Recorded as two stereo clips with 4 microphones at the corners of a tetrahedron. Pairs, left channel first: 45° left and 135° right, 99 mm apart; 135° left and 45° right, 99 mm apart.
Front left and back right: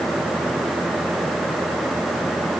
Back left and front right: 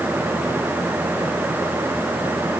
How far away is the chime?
No chime in this recording.